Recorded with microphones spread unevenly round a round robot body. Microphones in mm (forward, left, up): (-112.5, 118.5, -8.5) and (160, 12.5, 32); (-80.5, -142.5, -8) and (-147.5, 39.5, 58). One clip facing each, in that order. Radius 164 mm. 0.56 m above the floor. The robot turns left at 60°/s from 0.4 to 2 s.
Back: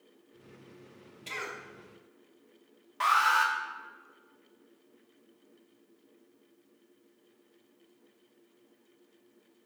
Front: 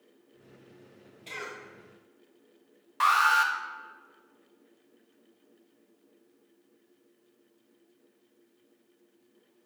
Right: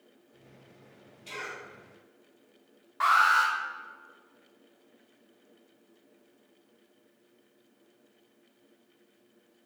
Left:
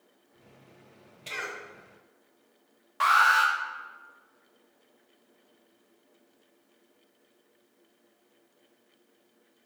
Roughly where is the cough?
Left.